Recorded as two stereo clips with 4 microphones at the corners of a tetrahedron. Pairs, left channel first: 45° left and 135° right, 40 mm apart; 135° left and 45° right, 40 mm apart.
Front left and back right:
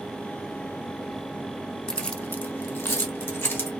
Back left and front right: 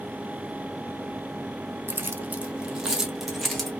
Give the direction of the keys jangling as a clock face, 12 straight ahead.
1 o'clock.